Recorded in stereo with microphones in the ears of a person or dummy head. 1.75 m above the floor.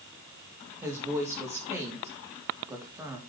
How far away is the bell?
No bell in this recording.